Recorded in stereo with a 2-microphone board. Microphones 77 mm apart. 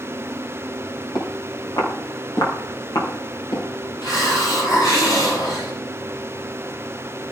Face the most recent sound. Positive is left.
turn(degrees=60)  # may be behind; listen again after turning